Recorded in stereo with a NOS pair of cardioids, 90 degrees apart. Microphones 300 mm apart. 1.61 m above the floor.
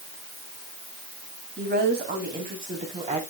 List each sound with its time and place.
1.6 s a woman speaking: 35° right, 4 m; by 3.2 s 20° right, 4 m